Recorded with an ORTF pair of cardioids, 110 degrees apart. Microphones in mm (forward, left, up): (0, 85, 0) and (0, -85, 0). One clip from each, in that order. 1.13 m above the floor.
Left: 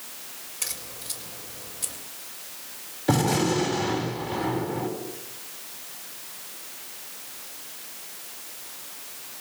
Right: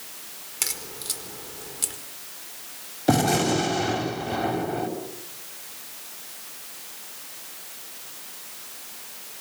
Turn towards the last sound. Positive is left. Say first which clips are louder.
# right 2 dB
turn(degrees=-30)